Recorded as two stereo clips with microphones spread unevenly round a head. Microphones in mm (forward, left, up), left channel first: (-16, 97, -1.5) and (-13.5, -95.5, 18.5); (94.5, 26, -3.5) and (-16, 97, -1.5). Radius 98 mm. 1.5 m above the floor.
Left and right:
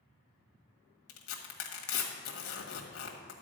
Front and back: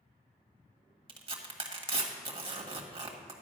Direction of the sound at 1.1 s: 105° left.